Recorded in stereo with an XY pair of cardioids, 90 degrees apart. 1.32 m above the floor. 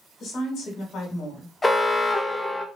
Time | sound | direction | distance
0.2 | a woman speaking | 65° left | 1.7 m
1.6 | an alarm | 20° left | 0.7 m